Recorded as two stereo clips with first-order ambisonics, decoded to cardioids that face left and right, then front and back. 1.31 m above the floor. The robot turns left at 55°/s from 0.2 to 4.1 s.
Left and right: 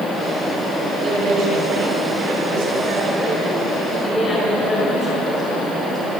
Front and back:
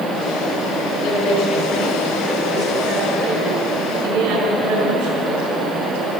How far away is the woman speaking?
About 5.5 m.